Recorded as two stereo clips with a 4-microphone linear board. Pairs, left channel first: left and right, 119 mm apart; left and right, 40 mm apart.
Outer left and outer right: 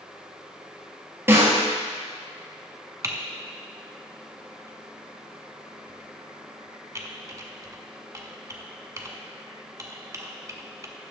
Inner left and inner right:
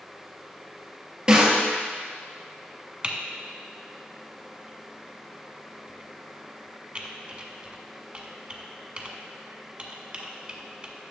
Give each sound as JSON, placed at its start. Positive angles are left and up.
{"t": 1.3, "sound": "a snare drum", "side_deg": -20, "distance_m": 2.0}
{"t": 3.0, "sound": "typing on a keyboard", "side_deg": -30, "distance_m": 0.8}